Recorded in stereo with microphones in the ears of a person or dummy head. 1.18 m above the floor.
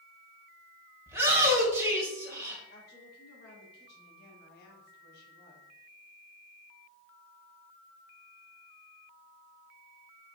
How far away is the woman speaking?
About 2.5 m.